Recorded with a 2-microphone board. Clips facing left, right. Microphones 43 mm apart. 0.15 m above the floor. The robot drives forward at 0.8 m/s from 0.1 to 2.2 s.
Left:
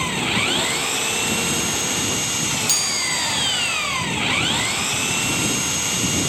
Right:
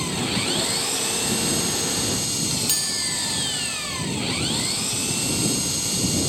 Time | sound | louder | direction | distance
0.0 | an engine running | left 4 dB | 45° left (ahead or behind) | ?
2.7 | a chime | left 5 dB | 25° right (ahead or behind) | ?